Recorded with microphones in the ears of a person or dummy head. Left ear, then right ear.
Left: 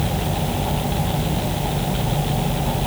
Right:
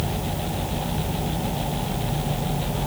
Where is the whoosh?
No whoosh in this recording.